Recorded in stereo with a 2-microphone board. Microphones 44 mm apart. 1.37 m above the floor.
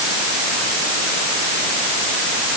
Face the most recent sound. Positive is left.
No sound to turn to.